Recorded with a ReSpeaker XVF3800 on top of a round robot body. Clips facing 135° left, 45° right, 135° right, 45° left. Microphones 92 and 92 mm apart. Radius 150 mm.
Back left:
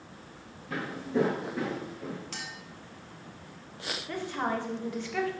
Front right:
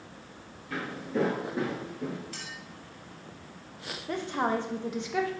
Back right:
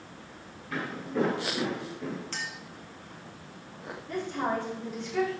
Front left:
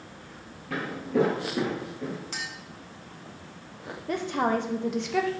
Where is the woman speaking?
25° left, 0.8 m.